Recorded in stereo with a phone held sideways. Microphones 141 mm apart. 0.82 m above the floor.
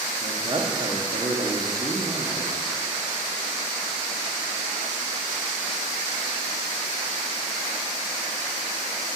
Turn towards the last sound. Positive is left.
turn(degrees=-40)  # may be behind; listen again after turning